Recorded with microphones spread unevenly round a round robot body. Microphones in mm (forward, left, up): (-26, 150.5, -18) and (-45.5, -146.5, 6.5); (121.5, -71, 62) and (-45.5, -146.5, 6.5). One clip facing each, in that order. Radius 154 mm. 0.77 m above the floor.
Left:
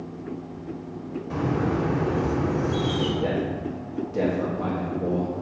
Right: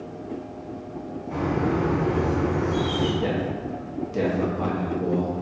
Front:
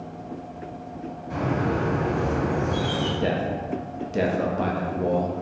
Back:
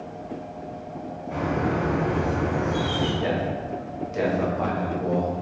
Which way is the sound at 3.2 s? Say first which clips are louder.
Even, even; 25° right.